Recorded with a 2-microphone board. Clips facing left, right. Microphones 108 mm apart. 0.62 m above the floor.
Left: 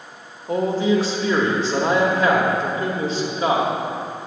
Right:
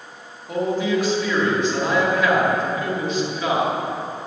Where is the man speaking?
35° left (ahead or behind), 1.3 m.